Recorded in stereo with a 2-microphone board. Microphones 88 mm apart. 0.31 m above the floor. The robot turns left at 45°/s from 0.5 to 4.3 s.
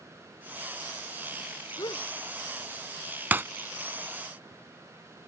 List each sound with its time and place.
1.8 s a gasp: 60° left (ahead or behind); by 2.1 s 75° left (ahead or behind)
3.3 s breaking glass: 20° right (ahead or behind); by 3.4 s 25° right (ahead or behind)